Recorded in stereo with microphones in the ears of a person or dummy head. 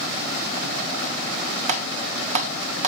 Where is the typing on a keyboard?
40° right (ahead or behind), 1.4 m.